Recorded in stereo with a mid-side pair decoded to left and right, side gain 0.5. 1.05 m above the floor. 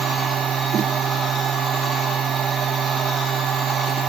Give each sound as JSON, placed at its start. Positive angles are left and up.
{"t": 0.0, "sound": "a machine running", "azimuth_deg": -50}